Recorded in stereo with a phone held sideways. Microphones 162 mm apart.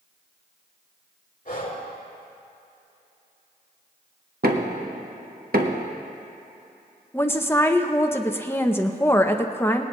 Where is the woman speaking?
15° left (ahead or behind), 0.7 m.